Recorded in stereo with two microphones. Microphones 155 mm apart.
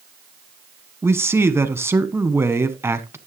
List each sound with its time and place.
1.0 s a man speaking: 15° right (ahead or behind), 1.2 m